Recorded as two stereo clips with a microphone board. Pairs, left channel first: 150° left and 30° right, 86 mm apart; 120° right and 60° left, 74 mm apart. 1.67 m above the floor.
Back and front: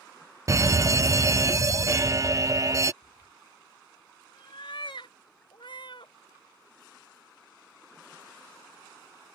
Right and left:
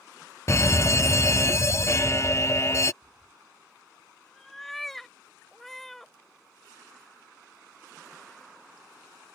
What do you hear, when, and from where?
0.5 s a fire alarm: 75° right
3.0 s a cat meowing: 155° left